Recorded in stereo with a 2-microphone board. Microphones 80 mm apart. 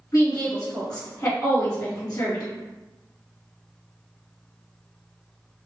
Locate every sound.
0.1 s a woman speaking: 40° left (ahead or behind), 1.8 m